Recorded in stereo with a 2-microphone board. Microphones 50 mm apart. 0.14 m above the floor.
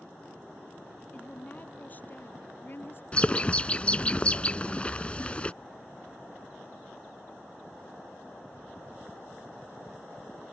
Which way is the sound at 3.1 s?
25° left (ahead or behind).